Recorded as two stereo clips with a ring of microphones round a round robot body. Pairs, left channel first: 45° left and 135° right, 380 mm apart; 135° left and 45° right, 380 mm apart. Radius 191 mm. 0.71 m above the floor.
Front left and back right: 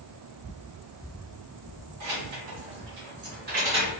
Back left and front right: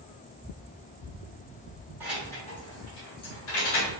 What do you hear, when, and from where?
2.0 s keys jangling: 130° right, 1.3 m; by 3.9 s 145° left, 1.5 m